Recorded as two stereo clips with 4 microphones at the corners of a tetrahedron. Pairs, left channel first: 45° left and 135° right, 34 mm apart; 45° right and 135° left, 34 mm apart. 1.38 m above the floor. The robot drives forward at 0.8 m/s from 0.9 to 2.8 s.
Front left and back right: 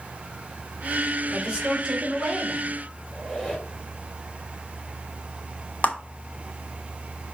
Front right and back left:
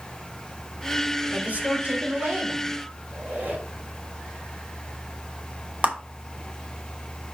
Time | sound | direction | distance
1.3 | a woman speaking | 165° left | 2.0 m
3.1 | a squeak | 145° left | 5 m
5.8 | a clap | 90° left | 1.5 m